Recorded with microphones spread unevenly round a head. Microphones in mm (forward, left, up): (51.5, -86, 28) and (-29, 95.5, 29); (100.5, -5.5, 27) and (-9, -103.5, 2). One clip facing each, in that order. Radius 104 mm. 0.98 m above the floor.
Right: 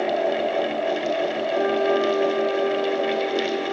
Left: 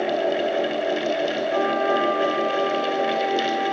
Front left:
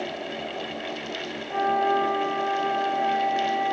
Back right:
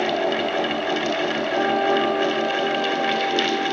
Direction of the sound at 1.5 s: 130° left.